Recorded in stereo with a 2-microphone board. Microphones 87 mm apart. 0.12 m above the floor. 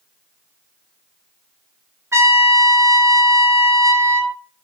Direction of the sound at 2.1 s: 35° right (ahead or behind).